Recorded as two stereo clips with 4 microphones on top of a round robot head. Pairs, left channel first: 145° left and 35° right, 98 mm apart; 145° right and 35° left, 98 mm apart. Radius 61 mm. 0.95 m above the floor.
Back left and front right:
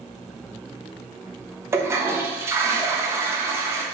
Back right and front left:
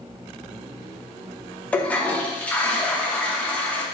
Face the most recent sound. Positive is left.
turn(degrees=-80)